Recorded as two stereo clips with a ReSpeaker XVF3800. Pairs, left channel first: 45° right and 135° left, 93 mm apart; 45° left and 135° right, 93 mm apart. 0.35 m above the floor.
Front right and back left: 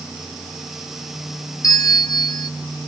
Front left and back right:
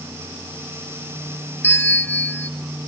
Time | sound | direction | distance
1.6 | a bell | 20° right | 1.1 m